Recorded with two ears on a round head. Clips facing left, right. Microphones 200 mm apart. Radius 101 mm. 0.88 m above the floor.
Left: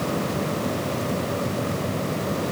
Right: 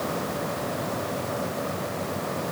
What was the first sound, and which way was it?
Only background noise.